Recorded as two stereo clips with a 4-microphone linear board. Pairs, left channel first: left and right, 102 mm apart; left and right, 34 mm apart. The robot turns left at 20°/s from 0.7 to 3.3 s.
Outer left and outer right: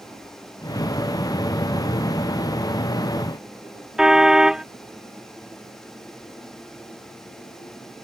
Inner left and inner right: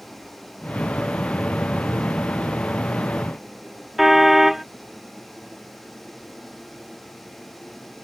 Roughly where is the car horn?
Centre.